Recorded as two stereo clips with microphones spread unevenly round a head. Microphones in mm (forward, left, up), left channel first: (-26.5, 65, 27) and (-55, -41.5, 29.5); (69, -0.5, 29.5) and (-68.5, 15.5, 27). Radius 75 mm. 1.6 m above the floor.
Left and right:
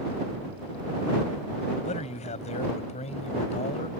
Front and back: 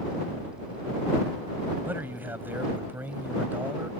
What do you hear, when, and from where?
1.9 s a man speaking: 95° left